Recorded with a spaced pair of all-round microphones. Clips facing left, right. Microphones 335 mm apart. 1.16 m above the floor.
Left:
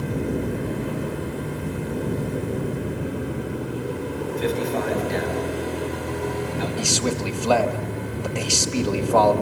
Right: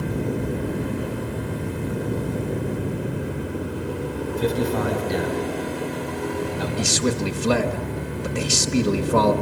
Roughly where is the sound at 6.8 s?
Right.